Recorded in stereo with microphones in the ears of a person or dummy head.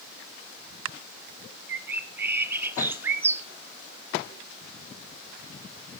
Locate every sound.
1.7 s a bird: 20° right (ahead or behind), 0.9 m